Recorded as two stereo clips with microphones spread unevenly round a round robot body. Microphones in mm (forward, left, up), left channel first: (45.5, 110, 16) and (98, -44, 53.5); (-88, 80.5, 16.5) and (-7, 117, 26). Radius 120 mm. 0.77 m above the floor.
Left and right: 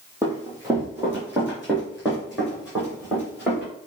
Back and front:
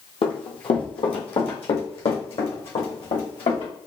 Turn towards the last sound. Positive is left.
turn(degrees=-155)